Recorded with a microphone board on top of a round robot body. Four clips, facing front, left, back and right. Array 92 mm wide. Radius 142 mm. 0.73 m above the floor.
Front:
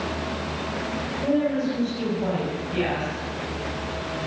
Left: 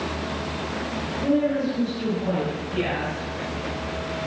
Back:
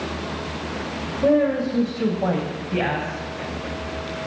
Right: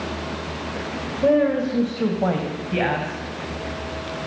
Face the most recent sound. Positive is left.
turn(degrees=-120)